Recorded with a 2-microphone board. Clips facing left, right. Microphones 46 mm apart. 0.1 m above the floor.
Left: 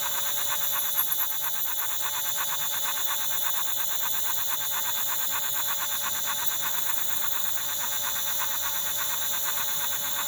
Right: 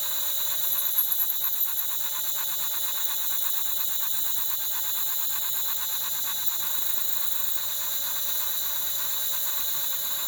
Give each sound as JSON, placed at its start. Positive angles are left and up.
{"t": 0.0, "sound": "an insect", "side_deg": 60, "distance_m": 1.6}